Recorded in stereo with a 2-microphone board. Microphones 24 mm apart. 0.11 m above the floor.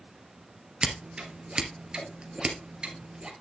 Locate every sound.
0.8 s scissors: 40° right (ahead or behind), 2.5 m